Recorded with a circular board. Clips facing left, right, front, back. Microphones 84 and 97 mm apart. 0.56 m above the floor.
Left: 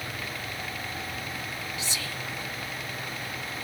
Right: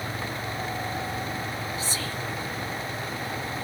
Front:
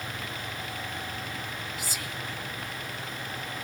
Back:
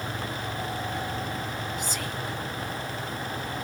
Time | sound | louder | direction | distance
1.8 | whispering | right 4 dB, back 5 dB | 80° right | 1.0 m